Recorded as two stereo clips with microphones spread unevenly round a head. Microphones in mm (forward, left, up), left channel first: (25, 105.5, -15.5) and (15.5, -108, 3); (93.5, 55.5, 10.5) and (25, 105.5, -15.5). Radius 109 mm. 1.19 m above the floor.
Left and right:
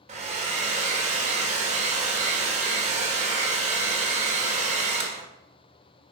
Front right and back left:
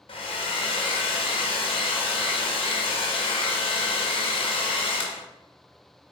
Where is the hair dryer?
35° right, 1.4 m.